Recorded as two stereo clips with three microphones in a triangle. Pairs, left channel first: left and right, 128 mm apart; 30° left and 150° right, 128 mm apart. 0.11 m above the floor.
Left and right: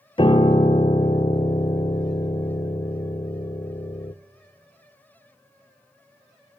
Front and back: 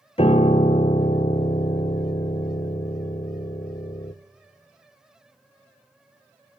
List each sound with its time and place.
0.2 s a piano: 55° left, 0.7 m